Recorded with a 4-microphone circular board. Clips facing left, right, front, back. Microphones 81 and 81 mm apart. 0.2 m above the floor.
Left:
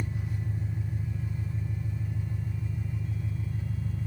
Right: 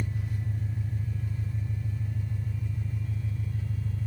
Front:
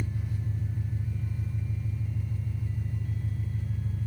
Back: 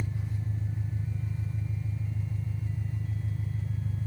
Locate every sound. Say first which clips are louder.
0.0 s an engine running: even, front 1 dB; 140° left, 1.0 m